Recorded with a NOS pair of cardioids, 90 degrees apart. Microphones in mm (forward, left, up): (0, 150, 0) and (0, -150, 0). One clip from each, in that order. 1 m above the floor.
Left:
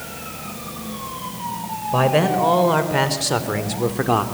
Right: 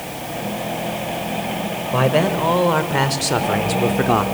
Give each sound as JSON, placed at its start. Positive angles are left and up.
{"t": 1.9, "sound": "a man speaking", "azimuth_deg": 0, "distance_m": 3.5}